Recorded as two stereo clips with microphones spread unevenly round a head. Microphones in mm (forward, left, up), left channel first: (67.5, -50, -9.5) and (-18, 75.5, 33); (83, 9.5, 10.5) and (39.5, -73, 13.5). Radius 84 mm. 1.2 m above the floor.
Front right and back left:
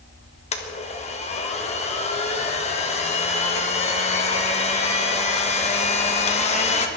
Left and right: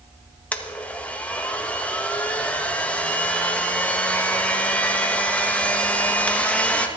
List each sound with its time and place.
0.5 s a blender: 15° right, 1.7 m